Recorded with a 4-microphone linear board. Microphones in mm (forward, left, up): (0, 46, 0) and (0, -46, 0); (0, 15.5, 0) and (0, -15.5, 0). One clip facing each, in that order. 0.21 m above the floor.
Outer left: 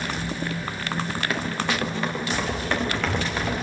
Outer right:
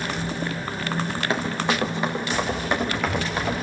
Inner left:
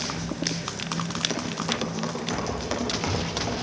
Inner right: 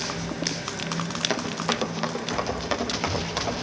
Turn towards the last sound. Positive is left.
turn(degrees=-10)  # may be behind; listen again after turning